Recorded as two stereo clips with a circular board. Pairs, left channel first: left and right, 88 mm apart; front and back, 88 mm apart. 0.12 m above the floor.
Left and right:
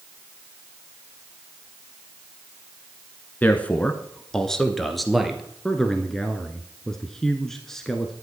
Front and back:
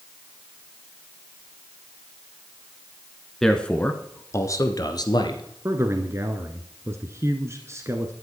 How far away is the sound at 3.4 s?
About 1.2 m.